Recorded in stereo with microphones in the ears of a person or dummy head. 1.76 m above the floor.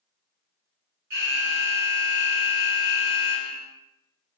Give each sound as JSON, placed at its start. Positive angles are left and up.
{"t": 1.1, "sound": "an alarm", "side_deg": -50, "distance_m": 0.8}